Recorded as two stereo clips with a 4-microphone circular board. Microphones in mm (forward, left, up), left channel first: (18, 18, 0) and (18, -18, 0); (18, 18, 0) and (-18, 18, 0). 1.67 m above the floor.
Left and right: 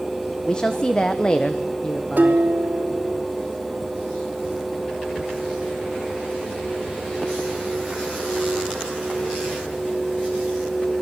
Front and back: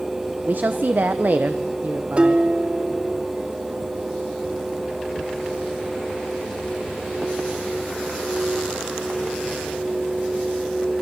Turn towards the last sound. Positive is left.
turn(degrees=-125)